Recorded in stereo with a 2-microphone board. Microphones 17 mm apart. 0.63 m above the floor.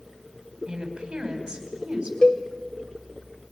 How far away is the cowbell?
About 1.9 m.